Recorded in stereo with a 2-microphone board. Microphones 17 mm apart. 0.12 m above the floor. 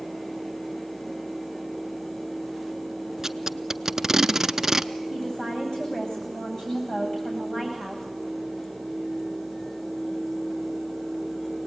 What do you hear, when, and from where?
3.2 s tape being pulled: 25° right (ahead or behind), 0.5 m
5.1 s a woman speaking: 60° left (ahead or behind), 9 m